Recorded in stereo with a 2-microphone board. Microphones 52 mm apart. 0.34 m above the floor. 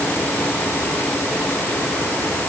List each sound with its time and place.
Only background noise.